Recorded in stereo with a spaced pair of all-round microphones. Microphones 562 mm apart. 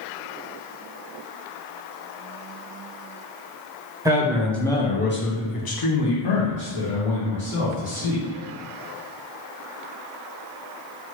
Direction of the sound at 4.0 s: 5° right (ahead or behind).